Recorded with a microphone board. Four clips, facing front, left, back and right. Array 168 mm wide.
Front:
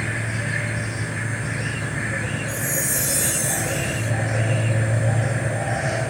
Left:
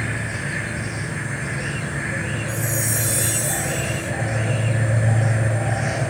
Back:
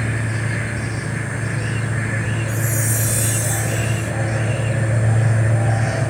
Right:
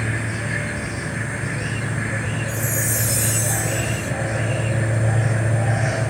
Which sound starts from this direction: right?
A chime, at 2.5 s.